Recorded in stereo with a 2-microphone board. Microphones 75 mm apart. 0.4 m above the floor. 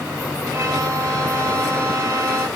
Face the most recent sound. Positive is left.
turn(degrees=-35)  # may be behind; listen again after turning